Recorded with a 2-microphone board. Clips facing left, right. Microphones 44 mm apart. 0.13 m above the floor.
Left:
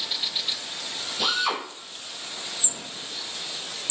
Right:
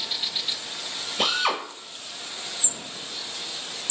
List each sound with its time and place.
1.2 s a drill: 45° right (ahead or behind), 1.7 m